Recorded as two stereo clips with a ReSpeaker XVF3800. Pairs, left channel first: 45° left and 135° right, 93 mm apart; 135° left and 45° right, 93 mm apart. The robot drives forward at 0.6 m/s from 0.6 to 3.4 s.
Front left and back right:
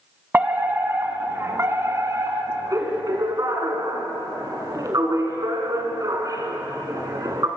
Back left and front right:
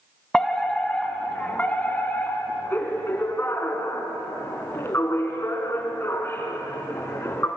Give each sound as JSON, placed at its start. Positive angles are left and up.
{"t": 0.3, "sound": "a fire alarm", "azimuth_deg": -155, "distance_m": 2.0}